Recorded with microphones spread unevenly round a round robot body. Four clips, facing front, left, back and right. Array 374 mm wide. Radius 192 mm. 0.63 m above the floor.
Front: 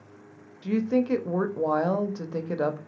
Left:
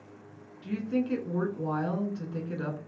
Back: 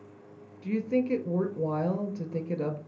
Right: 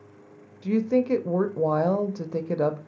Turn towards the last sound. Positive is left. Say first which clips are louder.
# right 7 dB, front 3 dB
turn(degrees=-75)